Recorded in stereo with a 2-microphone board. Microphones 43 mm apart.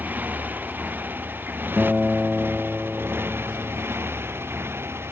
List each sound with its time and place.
0.0 s a motorcycle: 45° right (ahead or behind); by 5.1 s 70° right (ahead or behind)
1.8 s a guitar: 20° right (ahead or behind)